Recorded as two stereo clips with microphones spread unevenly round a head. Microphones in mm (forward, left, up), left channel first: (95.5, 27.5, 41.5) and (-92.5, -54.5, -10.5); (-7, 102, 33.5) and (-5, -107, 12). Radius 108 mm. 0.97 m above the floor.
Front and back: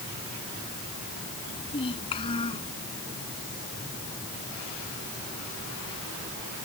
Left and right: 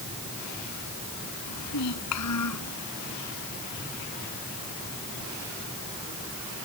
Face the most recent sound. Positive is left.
turn(degrees=90)